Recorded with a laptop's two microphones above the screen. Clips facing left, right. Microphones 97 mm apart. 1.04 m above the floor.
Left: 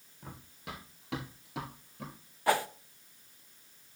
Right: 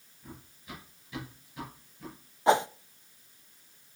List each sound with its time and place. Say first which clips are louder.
0.2 s running footsteps: left 2 dB; 80° left, 6 m
2.5 s a whoosh: right 5 dB; 25° right (ahead or behind), 0.6 m